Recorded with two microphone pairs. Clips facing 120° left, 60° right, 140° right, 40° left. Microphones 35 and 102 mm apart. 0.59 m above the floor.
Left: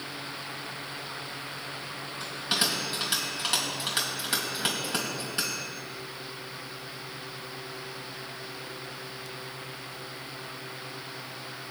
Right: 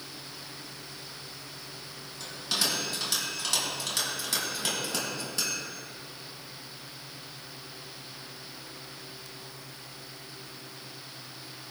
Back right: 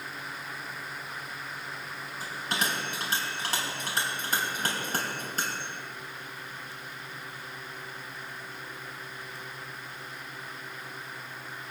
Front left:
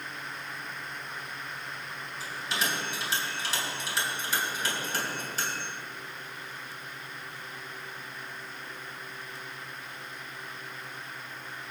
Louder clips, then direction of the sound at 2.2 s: Left 2 dB, back right 1 dB; 175° right.